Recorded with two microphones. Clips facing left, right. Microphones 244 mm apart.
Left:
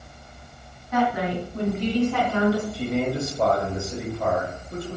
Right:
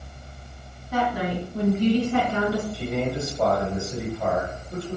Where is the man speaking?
5° left (ahead or behind), 1.6 m.